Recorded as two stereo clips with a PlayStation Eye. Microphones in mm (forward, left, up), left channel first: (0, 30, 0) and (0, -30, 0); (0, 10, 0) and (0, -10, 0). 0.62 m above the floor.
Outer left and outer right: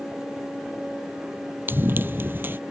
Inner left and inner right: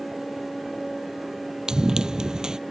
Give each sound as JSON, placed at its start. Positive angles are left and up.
{"t": 1.7, "sound": "running footsteps", "side_deg": -35}